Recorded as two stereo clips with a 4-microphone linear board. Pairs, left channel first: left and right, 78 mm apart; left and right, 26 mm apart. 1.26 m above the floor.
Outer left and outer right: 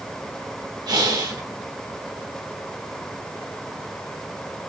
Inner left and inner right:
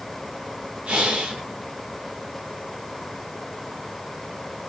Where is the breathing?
60° right (ahead or behind), 3 m.